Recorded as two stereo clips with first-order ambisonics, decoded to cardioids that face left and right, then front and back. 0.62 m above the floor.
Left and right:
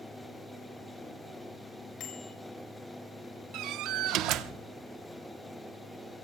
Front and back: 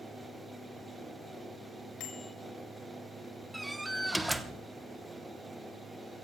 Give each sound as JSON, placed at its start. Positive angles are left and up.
{"t": 2.0, "sound": "a bicycle bell", "azimuth_deg": 40, "distance_m": 6.5}
{"t": 3.5, "sound": "a door slam", "azimuth_deg": -95, "distance_m": 0.8}